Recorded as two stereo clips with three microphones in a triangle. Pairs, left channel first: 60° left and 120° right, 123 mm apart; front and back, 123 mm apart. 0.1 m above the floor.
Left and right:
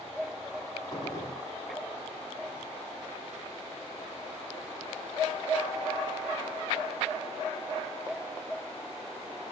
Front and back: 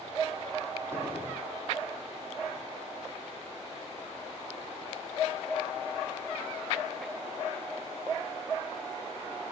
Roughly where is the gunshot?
Left.